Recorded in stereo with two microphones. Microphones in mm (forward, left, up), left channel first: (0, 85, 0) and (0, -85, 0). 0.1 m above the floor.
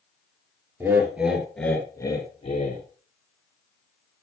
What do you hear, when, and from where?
0.8 s laughter: 15° right (ahead or behind), 2 m; by 2.8 s 40° left (ahead or behind), 1.9 m